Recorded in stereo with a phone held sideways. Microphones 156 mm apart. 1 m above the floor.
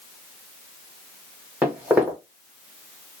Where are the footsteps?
10° right (ahead or behind), 1.8 m.